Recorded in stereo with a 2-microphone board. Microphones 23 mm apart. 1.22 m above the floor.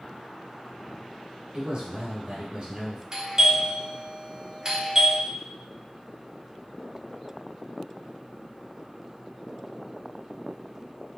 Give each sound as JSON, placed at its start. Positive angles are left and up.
{"t": 1.5, "sound": "a man speaking", "side_deg": -35, "distance_m": 1.5}
{"t": 3.1, "sound": "a doorbell", "side_deg": -25, "distance_m": 1.0}